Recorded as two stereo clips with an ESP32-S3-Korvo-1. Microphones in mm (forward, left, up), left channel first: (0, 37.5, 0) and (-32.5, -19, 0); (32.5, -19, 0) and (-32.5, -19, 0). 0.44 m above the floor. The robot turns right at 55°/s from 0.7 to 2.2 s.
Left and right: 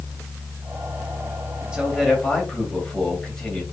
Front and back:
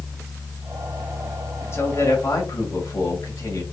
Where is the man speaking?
45° right, 1.9 m; by 3.6 s 20° right, 1.9 m.